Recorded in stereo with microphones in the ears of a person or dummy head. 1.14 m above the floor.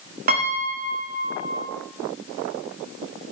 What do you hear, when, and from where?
0.3 s a piano: 40° right (ahead or behind), 1.0 m